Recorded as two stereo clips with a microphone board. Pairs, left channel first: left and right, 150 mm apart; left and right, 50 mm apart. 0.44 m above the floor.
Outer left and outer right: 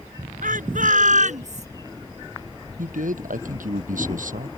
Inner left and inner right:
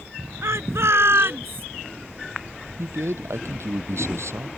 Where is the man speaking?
65° right (ahead or behind).